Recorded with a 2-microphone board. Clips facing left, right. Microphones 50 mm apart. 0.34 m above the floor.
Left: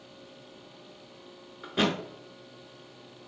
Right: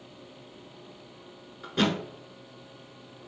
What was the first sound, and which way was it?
A thud, 10° left (ahead or behind).